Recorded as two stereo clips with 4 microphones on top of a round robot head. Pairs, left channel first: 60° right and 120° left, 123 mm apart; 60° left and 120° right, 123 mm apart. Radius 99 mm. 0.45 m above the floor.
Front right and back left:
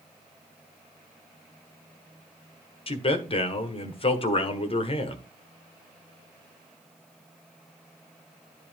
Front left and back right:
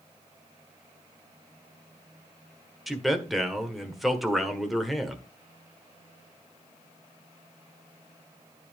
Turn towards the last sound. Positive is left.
turn(degrees=-30)